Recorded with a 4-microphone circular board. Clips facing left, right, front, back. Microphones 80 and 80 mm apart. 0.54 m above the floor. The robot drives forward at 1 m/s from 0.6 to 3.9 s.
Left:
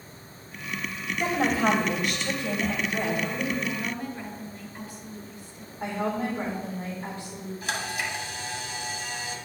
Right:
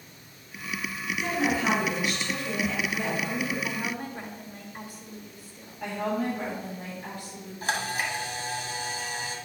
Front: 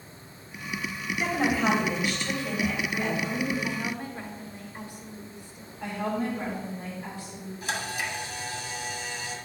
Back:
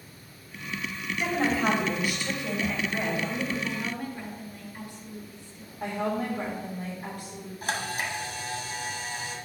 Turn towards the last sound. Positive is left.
turn(degrees=-140)